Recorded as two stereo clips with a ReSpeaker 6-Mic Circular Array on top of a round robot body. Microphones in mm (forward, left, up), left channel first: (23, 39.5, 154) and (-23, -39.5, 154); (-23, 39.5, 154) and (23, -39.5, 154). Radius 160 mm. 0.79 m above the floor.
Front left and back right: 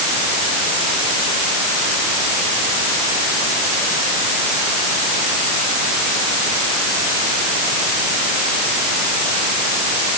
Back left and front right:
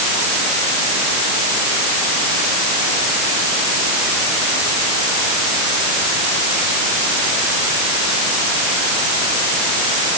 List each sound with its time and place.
Only background noise.